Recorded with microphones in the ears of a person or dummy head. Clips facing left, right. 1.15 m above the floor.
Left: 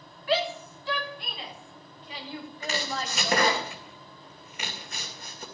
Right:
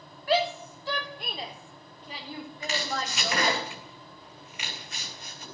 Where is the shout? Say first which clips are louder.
Right 2 dB; 35° right (ahead or behind), 3.5 m.